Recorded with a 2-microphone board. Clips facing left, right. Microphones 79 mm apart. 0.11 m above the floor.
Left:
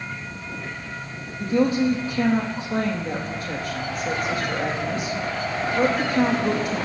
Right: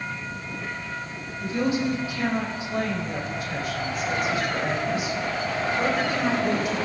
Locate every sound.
1.4 s a woman speaking: 40° left (ahead or behind), 4.5 m